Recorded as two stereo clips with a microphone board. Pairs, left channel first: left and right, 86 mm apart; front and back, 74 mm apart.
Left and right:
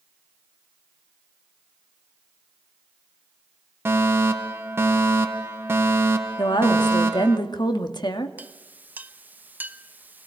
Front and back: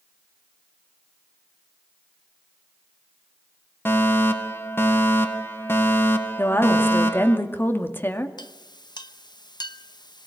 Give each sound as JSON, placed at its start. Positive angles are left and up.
{"t": 3.9, "sound": "a fire alarm", "azimuth_deg": -40, "distance_m": 1.8}
{"t": 6.4, "sound": "a woman speaking", "azimuth_deg": 60, "distance_m": 2.0}
{"t": 8.4, "sound": "a clink", "azimuth_deg": -20, "distance_m": 0.9}